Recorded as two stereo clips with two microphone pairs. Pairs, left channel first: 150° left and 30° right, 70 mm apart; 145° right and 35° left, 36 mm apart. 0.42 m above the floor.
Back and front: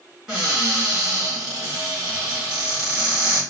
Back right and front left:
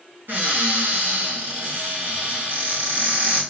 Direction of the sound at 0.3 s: 50° left.